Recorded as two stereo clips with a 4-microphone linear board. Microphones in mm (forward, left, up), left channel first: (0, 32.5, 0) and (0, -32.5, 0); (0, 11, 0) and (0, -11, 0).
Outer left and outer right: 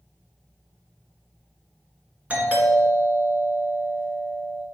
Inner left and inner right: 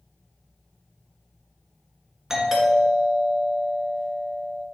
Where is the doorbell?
20° right (ahead or behind), 2 m.